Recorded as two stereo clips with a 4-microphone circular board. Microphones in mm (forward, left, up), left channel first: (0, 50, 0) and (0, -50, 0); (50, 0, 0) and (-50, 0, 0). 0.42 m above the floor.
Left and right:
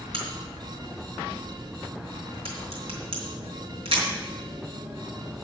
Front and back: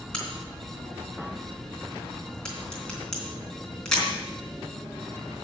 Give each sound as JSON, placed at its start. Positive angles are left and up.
{"t": 0.1, "sound": "a crack", "azimuth_deg": -85, "distance_m": 3.5}